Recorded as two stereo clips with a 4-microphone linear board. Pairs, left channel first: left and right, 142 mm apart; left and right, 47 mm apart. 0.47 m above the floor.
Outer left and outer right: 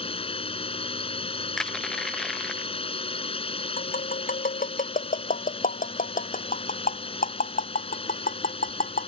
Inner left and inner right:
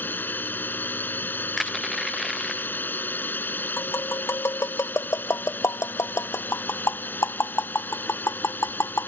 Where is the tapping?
75° left (ahead or behind).